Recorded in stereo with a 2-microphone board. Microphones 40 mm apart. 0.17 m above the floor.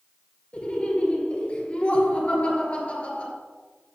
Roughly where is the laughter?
Left.